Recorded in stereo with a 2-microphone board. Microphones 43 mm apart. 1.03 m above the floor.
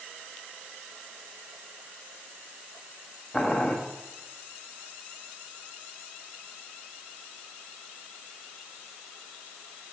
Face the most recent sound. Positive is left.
turn(degrees=20)  # may be behind; listen again after turning